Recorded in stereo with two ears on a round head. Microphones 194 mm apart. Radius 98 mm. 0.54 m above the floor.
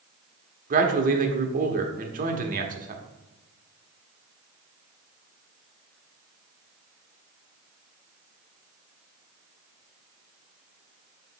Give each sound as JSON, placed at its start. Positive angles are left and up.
{"t": 0.7, "sound": "a man speaking", "side_deg": -40, "distance_m": 1.1}